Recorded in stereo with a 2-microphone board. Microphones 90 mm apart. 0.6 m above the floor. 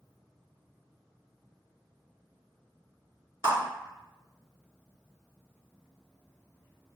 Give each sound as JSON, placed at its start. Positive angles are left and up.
{"t": 3.4, "sound": "a clap", "side_deg": -50, "distance_m": 1.7}